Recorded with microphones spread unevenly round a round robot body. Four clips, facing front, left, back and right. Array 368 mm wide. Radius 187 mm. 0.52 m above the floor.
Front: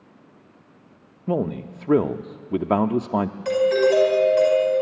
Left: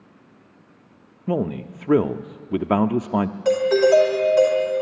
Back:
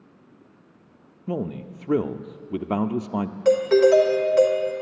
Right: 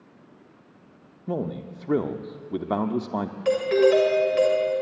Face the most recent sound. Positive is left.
turn(degrees=160)